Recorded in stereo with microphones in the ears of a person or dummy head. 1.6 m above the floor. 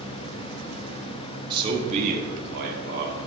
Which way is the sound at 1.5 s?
25° right (ahead or behind).